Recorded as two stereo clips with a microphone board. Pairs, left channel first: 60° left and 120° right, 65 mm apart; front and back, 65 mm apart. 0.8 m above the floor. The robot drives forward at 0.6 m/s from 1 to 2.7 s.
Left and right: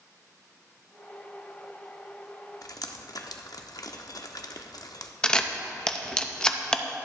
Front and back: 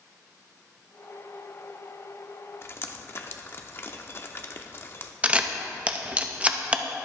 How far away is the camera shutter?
About 0.6 m.